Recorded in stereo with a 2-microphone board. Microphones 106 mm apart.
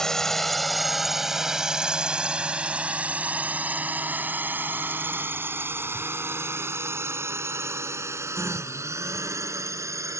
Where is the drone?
5° left (ahead or behind); by 10.2 s 30° right (ahead or behind).